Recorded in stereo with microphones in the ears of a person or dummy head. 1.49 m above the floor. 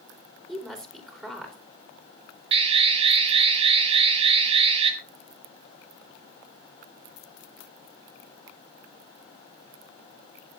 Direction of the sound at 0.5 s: Centre (ahead or behind).